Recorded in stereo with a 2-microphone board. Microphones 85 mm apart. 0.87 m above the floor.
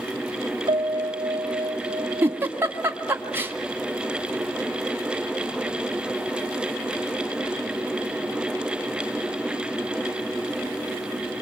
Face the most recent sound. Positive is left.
turn(degrees=-25)  # may be behind; listen again after turning